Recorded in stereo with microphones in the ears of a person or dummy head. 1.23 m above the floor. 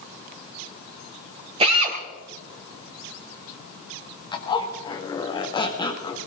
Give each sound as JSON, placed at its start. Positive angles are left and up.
{"t": 1.6, "sound": "a drill", "side_deg": -25, "distance_m": 3.0}
{"t": 4.3, "sound": "a zipper", "side_deg": 20, "distance_m": 1.5}